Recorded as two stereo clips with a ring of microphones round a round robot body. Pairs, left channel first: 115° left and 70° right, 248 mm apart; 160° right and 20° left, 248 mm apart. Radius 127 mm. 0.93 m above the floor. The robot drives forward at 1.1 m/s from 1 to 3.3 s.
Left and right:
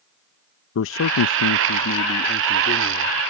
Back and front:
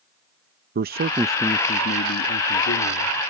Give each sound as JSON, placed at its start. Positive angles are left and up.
{"t": 0.8, "sound": "a man speaking", "azimuth_deg": 75}